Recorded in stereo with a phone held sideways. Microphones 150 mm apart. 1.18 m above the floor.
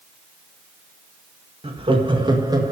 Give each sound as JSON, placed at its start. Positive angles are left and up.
{"t": 1.6, "sound": "laughter", "side_deg": -40, "distance_m": 1.8}